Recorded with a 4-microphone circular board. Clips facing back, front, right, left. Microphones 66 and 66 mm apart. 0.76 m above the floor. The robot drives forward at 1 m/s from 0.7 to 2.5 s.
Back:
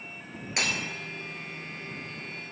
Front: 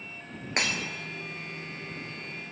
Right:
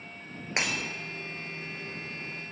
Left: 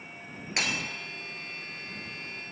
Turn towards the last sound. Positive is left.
turn(degrees=-160)